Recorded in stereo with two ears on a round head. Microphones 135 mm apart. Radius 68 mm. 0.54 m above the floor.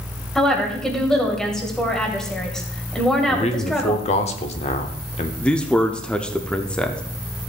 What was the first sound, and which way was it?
A woman speaking, 5° left (ahead or behind).